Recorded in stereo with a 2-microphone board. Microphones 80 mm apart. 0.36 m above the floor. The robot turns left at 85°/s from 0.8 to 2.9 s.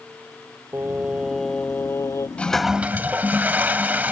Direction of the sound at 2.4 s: 20° left.